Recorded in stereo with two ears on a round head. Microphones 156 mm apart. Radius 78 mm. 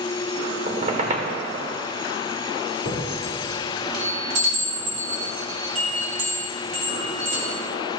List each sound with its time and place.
0.7 s a squeak: 40° right (ahead or behind), 0.9 m
2.9 s a chime: 45° right (ahead or behind), 3 m